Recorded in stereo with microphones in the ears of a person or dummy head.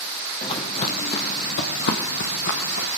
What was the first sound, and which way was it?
Footsteps, 25° left (ahead or behind).